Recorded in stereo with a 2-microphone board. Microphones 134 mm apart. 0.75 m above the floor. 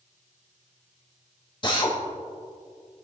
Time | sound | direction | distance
1.6 | a drill | 40° left (ahead or behind) | 2.5 m